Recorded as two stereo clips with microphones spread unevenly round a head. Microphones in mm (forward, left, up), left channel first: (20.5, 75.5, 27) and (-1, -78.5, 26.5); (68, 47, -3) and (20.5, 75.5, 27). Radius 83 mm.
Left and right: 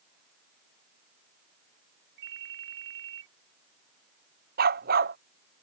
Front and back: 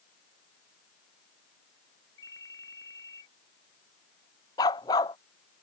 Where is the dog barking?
70° right.